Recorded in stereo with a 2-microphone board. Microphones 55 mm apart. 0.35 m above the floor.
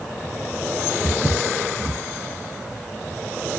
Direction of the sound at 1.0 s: 45° right (ahead or behind).